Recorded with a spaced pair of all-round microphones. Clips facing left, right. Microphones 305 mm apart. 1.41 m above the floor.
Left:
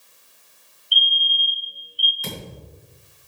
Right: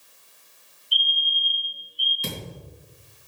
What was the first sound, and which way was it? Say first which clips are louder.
A fire alarm: left 4 dB; centre (ahead or behind).